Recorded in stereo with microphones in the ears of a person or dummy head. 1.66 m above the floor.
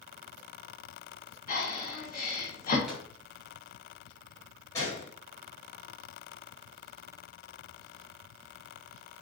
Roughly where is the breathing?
Left.